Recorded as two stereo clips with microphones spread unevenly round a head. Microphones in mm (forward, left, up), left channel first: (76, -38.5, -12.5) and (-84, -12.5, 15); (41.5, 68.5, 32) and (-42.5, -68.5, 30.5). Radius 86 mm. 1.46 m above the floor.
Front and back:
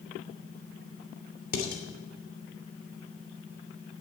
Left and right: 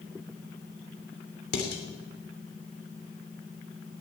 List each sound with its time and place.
1.5 s dishes clattering: 35° left, 3 m